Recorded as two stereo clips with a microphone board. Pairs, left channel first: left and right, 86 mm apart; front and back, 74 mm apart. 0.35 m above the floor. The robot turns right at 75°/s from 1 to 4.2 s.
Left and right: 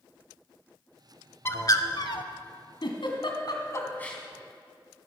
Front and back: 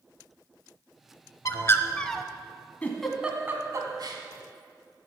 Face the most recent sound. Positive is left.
turn(degrees=175)